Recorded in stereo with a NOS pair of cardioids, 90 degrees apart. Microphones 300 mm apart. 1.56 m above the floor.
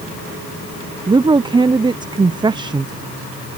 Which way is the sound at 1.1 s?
15° right.